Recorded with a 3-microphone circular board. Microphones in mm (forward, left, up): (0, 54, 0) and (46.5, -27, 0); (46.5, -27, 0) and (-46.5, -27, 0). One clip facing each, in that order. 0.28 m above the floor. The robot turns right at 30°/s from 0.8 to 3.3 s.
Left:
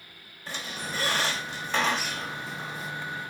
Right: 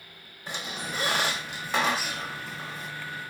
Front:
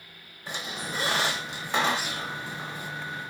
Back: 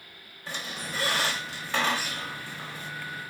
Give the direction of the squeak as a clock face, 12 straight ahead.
1 o'clock.